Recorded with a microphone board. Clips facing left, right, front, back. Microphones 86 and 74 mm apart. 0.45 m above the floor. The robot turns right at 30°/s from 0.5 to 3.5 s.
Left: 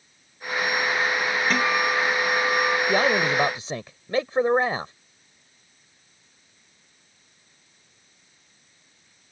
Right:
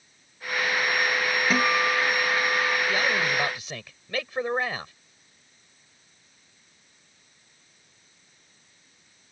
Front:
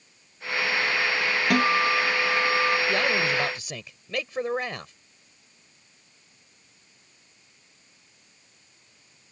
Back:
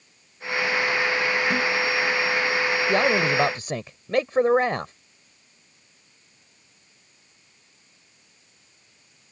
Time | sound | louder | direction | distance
1.5 | a guitar | even, front 2 dB | 10° right | ?
2.9 | a man speaking | left 4 dB, back 4 dB | 125° left | ?